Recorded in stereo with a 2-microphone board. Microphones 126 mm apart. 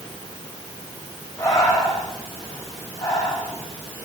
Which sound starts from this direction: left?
Breathing, at 1.4 s.